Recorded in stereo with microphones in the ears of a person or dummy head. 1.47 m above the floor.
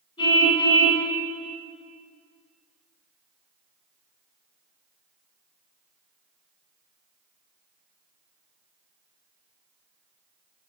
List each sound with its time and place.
0.2 s a car horn: 25° left (ahead or behind), 6.5 m